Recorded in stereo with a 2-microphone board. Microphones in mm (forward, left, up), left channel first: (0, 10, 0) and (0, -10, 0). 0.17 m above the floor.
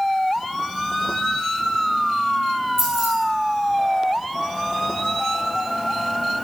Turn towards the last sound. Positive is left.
turn(degrees=-25)  # may be behind; listen again after turning